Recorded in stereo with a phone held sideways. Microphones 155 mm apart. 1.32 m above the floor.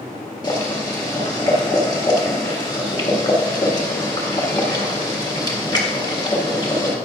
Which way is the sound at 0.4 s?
25° left (ahead or behind).